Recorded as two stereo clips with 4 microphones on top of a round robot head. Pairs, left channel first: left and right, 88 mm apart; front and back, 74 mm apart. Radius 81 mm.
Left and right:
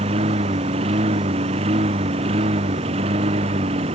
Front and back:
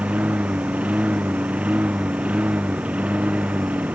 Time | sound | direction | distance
0.0 | a lawn mower | 100° right | ?